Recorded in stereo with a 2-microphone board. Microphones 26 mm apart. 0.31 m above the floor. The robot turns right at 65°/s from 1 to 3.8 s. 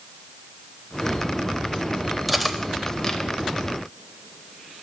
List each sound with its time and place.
2.3 s cutlery clinking: 5° right (ahead or behind), 0.5 m; by 3.2 s 30° left (ahead or behind), 0.5 m